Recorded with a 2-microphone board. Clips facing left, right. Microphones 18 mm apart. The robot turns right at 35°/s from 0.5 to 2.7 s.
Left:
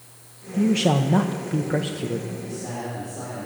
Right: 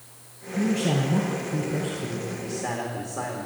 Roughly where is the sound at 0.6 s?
Ahead left.